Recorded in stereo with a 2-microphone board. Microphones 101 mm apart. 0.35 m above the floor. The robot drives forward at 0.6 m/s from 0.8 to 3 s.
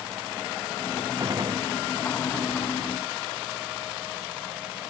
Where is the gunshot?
40° right (ahead or behind).